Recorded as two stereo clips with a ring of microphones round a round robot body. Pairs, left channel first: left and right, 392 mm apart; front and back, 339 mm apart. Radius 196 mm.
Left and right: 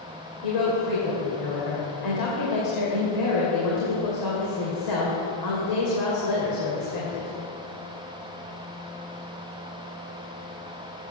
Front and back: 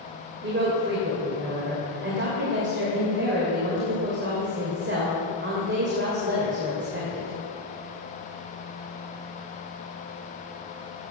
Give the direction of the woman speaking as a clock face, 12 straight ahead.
8 o'clock.